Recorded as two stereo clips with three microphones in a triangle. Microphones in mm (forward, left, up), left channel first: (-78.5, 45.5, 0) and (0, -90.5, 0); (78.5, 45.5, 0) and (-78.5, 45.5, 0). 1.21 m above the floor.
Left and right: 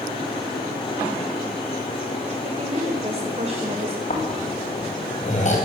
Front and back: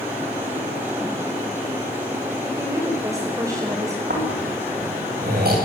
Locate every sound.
2.4 s a woman speaking: 110° right, 5 m
4.1 s snoring: 165° left, 9.5 m